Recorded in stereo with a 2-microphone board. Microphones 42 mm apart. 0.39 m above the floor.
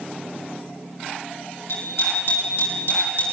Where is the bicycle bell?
65° left (ahead or behind), 9 m.